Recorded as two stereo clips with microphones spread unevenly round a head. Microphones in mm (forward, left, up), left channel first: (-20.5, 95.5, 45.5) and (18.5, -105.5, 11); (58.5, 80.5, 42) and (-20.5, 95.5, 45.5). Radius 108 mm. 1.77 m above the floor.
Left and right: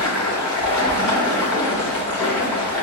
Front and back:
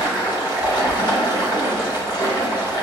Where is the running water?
15° left, 1.0 m.